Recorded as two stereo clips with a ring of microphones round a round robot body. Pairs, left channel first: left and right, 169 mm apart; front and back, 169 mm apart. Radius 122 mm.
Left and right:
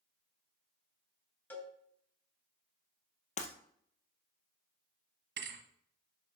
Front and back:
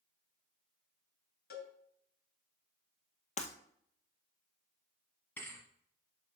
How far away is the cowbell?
About 3 m.